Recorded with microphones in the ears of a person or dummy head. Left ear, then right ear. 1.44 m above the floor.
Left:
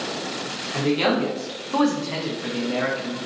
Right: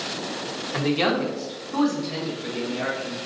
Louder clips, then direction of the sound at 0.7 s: Left 1 dB; 20° right (ahead or behind).